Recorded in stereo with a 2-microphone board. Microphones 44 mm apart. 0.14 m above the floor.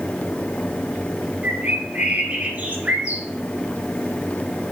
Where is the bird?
45° right (ahead or behind), 2.5 m.